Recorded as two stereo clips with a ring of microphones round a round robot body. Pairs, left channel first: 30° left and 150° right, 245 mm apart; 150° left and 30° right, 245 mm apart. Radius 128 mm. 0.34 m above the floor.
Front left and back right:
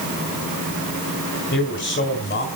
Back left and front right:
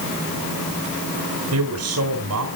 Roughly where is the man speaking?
Ahead.